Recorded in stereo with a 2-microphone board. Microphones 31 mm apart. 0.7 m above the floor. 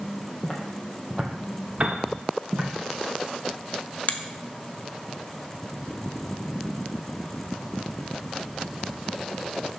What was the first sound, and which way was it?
Footsteps, 5° left (ahead or behind).